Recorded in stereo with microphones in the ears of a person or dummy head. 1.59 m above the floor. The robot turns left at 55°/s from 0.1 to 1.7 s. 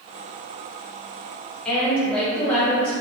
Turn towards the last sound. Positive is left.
turn(degrees=5)  # may be behind; listen again after turning